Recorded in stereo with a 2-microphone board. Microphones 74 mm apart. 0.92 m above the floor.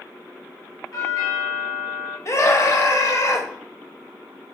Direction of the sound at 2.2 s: 40° left (ahead or behind).